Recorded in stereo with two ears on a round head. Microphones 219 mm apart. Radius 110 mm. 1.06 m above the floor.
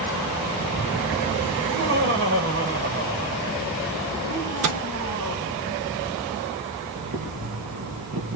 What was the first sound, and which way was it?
Laughter, 50° right (ahead or behind).